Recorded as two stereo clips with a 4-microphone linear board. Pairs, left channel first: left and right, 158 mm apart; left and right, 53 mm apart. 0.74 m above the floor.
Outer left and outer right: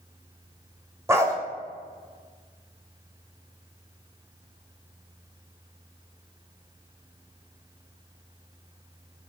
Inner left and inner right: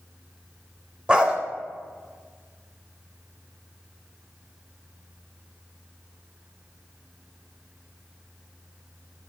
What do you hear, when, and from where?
1.1 s a dog barking: 15° right (ahead or behind), 0.5 m